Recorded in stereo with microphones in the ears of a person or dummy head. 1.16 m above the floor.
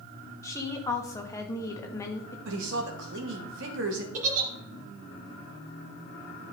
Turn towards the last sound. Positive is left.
turn(degrees=-50)  # may be behind; listen again after turning